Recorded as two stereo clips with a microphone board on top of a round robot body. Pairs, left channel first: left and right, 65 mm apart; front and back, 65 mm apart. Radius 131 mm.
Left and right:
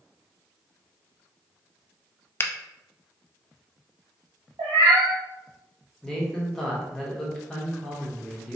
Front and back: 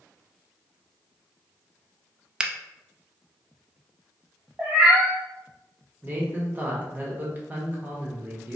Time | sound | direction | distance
2.4 | a finger snap | 115° left | 0.5 m
4.6 | a cat meowing | 110° right | 1.0 m
6.0 | a man speaking | 160° left | 1.2 m